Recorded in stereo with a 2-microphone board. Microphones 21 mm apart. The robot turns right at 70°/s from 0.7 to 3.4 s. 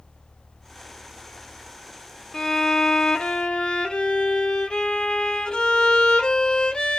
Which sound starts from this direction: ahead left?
A violin, at 2.3 s.